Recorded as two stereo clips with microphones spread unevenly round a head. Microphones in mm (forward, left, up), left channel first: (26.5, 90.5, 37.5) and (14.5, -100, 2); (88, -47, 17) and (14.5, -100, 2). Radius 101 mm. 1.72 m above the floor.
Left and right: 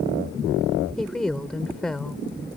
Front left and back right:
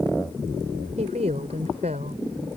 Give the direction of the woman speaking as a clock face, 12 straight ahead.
6 o'clock.